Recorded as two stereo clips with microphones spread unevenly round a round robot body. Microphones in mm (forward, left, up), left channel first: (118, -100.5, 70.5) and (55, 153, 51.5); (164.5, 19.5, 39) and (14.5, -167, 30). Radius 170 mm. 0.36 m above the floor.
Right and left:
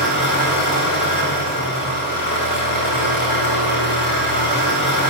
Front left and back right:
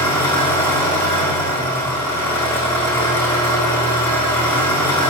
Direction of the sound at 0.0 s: 30° right.